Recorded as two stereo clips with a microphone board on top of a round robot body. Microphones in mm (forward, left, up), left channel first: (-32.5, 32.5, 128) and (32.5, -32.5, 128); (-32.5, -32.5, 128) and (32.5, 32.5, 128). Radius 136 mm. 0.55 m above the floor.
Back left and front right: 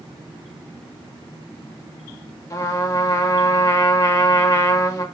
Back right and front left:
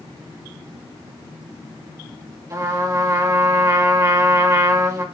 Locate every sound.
2.5 s a trumpet: 90° left, 1.7 m